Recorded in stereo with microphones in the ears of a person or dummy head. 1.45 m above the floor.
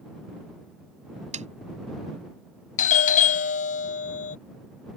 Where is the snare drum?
40° right (ahead or behind).